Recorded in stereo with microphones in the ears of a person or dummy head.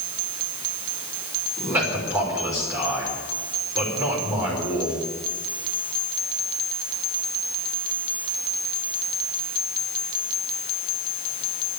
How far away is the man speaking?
About 5.5 m.